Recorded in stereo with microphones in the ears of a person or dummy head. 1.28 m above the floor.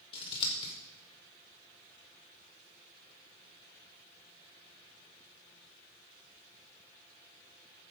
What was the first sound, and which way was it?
Scissors, 30° left (ahead or behind).